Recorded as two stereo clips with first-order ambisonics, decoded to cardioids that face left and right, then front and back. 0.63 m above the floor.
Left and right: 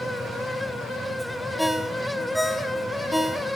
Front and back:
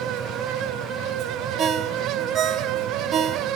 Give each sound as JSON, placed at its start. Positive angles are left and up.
{"t": 1.6, "sound": "a ringtone", "azimuth_deg": 180, "distance_m": 0.6}